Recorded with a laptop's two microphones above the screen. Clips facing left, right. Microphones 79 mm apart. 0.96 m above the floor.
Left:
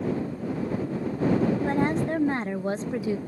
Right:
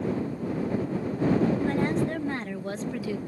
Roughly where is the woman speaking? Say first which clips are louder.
Left 1 dB; left.